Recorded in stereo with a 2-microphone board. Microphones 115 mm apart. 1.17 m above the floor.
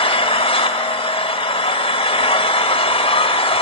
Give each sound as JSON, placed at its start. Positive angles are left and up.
{"t": 0.0, "sound": "an engine running", "side_deg": 55, "distance_m": 1.4}